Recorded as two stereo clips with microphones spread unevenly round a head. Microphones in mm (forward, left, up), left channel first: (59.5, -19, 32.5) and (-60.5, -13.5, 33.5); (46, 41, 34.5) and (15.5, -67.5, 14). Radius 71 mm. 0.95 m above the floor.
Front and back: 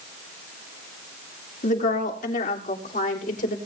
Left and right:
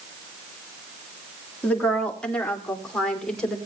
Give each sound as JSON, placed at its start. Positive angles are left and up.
{"t": 1.6, "sound": "a woman speaking", "azimuth_deg": -5, "distance_m": 2.5}